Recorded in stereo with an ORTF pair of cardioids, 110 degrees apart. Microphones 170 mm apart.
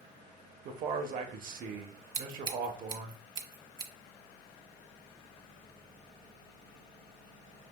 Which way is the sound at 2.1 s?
30° right.